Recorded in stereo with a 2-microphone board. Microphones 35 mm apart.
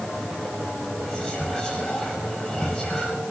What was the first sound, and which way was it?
Whispering, 15° left (ahead or behind).